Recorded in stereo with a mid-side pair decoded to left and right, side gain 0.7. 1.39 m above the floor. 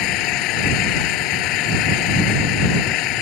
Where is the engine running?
60° left.